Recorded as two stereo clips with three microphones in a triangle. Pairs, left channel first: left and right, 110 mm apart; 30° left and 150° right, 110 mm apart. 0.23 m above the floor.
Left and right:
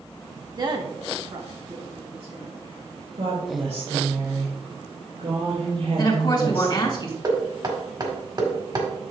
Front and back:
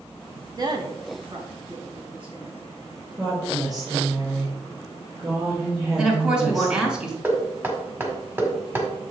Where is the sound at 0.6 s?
115° right, 1.2 m.